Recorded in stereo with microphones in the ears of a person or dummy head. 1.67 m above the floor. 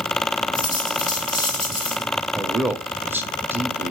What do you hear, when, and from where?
0.5 s a dropped coin: 25° left (ahead or behind), 5 m
2.4 s a man speaking: 10° right (ahead or behind), 0.6 m